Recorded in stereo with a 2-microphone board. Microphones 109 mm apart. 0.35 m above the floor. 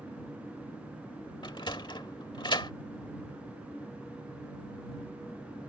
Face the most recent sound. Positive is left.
turn(degrees=45)  # may be behind; listen again after turning